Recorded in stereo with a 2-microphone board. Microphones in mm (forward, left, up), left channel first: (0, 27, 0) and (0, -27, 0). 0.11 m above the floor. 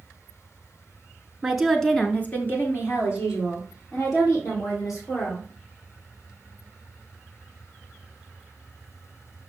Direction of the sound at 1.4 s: 10° right (ahead or behind).